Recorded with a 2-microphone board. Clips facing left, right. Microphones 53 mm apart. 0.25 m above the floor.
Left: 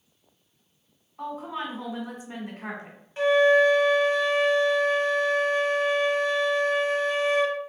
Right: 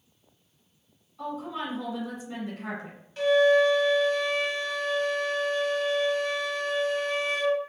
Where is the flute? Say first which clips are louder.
Left 2 dB; 25° left (ahead or behind), 0.8 m.